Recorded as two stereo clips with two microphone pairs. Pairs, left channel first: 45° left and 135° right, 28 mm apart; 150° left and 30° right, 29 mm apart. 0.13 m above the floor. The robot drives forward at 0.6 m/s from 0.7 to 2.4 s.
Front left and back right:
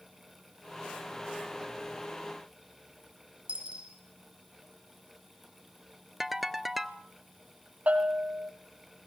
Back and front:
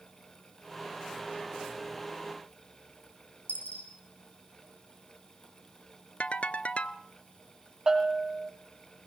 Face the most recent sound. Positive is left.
turn(degrees=-100)